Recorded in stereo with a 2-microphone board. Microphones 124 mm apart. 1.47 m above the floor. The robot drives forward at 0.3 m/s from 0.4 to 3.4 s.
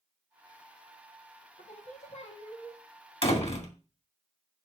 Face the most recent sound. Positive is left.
turn(degrees=55)  # may be behind; listen again after turning